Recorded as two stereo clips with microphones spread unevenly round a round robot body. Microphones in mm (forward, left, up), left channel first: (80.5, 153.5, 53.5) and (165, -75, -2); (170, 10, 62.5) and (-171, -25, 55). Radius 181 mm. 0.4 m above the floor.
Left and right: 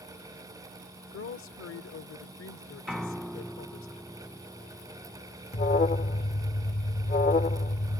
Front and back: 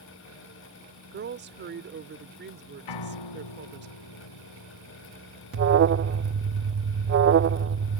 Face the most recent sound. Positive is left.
turn(degrees=170)